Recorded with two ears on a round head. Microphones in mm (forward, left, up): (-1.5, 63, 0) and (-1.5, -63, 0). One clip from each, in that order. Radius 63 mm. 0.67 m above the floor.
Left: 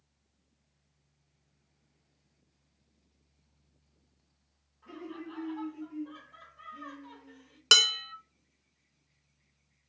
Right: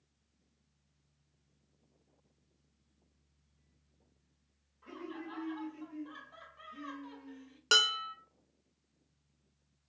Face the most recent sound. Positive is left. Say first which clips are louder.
# left 5 dB
turn(degrees=35)  # may be behind; listen again after turning